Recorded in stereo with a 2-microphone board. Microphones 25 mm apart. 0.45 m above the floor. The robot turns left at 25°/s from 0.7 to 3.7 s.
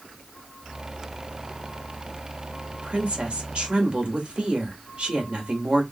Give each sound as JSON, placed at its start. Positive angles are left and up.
{"t": 2.7, "sound": "a woman speaking", "side_deg": -50, "distance_m": 1.7}